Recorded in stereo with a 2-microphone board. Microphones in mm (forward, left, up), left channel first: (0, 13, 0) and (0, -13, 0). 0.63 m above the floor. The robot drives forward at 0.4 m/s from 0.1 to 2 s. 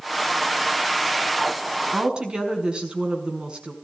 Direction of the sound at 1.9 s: 35° right (ahead or behind).